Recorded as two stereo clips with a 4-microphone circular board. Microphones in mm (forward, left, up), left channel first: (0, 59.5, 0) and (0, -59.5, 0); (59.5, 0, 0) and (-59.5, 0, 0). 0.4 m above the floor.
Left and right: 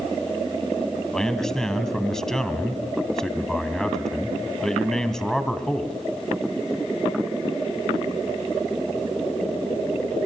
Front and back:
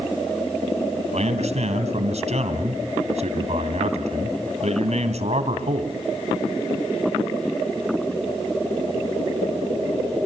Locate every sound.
1.1 s a man speaking: 175° left, 2.5 m